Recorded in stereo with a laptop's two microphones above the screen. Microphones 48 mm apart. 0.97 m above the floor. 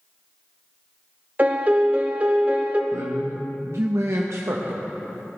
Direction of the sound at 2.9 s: 65° right (ahead or behind).